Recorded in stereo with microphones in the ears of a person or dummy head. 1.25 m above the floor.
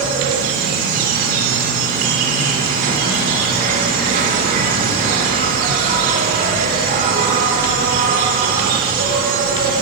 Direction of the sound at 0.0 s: 50° right (ahead or behind).